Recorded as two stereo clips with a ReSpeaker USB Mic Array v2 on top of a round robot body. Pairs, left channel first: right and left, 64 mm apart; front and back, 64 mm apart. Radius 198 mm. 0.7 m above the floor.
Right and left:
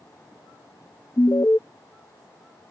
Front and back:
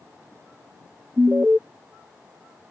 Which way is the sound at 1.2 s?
115° right.